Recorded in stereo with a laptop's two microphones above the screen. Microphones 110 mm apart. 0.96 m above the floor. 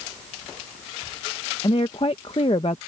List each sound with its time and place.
1.6 s a woman speaking: 50° left (ahead or behind)